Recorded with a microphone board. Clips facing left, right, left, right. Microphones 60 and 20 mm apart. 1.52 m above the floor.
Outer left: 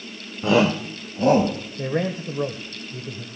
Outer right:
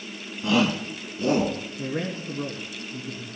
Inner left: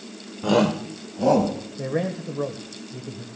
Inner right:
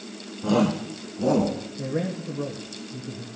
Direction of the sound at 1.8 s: 55° left (ahead or behind).